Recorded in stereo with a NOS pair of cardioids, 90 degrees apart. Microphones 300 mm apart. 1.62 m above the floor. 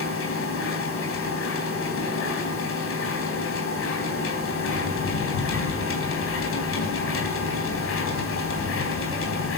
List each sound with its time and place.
0.0 s a machine running: 50° left, 4 m